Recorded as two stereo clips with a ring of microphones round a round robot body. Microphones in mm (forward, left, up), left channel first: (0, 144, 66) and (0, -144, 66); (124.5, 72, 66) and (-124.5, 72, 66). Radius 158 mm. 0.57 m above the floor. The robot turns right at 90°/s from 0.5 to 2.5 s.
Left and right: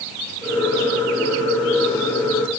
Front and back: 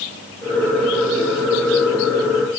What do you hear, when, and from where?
Only background noise.